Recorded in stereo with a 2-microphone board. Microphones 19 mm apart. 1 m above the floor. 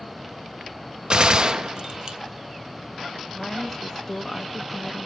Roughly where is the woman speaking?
Centre.